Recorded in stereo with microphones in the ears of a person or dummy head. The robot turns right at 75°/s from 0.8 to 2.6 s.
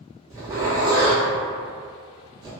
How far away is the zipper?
About 0.6 m.